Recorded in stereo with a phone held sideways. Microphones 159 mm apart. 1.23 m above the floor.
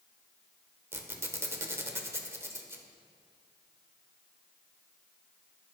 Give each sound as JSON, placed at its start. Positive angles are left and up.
{"t": 0.9, "sound": "a squeak", "side_deg": -15, "distance_m": 1.0}